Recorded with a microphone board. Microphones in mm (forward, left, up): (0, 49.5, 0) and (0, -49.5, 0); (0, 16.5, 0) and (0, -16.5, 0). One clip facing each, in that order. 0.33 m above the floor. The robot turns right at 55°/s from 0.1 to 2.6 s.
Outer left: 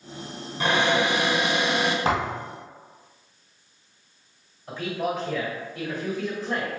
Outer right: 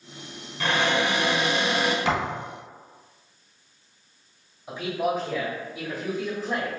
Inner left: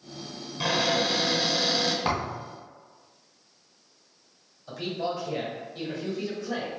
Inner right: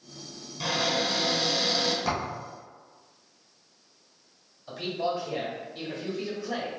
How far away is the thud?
About 1.8 m.